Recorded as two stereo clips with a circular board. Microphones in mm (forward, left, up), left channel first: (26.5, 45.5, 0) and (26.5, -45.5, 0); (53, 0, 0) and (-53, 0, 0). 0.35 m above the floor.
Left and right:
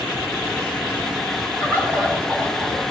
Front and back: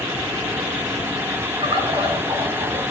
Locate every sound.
1.6 s a bird: 145° right, 3.5 m